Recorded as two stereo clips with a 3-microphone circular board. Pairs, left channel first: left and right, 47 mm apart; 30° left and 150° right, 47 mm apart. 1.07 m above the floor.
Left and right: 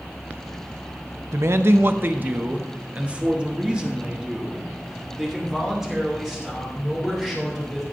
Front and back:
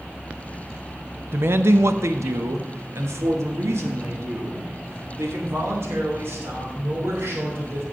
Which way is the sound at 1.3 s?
110° right.